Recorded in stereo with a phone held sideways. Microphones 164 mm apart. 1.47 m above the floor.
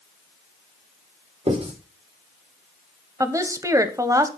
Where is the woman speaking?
20° right (ahead or behind), 1.0 m.